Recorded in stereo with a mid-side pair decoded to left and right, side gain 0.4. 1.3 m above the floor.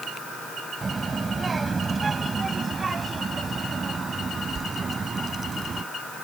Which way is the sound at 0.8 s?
30° right.